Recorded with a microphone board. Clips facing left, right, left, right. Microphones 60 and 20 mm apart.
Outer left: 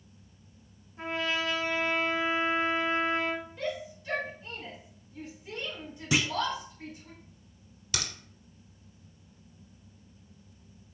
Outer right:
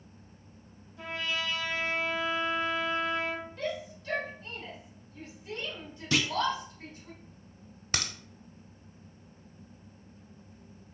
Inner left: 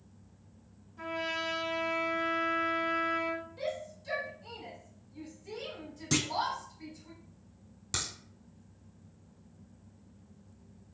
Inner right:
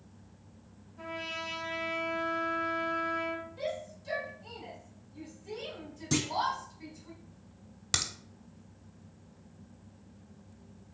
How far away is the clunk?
About 0.5 m.